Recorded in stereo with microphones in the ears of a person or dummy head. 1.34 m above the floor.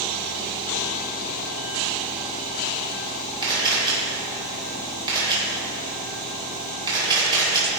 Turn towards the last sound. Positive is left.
turn(degrees=-20)  # may be behind; listen again after turning